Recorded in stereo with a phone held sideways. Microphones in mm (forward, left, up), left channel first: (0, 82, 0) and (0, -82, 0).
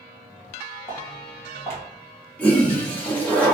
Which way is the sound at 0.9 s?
15° left (ahead or behind).